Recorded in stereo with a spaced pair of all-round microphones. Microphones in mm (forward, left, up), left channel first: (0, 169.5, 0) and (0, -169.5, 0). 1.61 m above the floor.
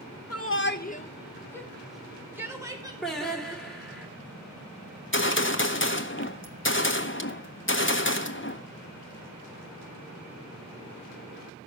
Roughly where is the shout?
Left.